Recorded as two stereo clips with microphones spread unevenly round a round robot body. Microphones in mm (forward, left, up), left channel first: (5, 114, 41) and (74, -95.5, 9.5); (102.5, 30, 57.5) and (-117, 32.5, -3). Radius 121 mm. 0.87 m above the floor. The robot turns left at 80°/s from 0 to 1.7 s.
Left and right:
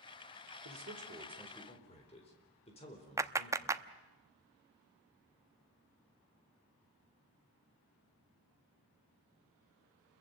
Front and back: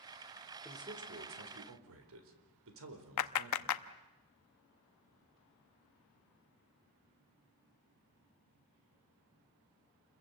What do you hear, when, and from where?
0.7 s a man speaking: 100° right, 4 m; by 3.8 s 175° left, 4 m
3.2 s a clap: 5° left, 0.9 m